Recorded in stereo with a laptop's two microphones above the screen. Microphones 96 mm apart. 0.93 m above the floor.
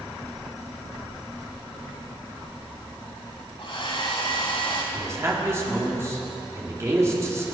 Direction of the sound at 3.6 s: 60° left (ahead or behind).